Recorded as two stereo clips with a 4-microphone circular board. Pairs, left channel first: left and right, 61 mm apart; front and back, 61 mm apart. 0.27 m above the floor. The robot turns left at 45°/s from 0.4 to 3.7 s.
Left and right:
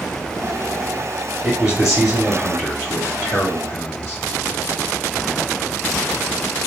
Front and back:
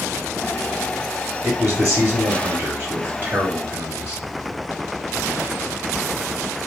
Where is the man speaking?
155° right, 1.8 m; by 4.2 s 105° left, 1.8 m.